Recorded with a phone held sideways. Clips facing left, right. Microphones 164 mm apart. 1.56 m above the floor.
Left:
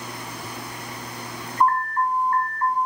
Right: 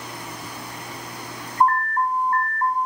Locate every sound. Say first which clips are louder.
1.6 s an alarm: right 1 dB; 30° right (ahead or behind), 0.7 m